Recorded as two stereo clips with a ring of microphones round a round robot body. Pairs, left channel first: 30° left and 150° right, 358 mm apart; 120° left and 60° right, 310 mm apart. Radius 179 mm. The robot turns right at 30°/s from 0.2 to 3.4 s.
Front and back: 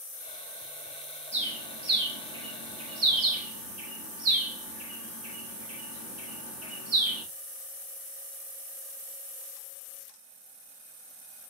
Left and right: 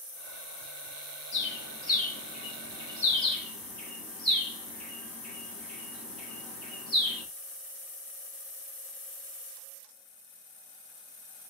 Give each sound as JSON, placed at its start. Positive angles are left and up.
{"t": 1.3, "sound": "a bird", "azimuth_deg": 145, "distance_m": 1.1}